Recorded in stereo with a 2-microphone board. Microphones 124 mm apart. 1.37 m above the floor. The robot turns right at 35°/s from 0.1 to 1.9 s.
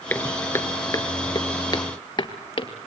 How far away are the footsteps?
About 1.3 m.